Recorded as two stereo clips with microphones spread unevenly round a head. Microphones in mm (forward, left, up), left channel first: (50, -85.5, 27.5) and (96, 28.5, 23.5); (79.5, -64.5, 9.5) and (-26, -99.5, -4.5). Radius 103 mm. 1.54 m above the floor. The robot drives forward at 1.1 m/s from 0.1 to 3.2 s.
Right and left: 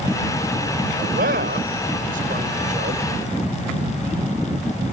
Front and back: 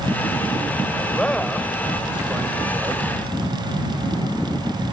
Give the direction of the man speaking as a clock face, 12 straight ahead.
9 o'clock.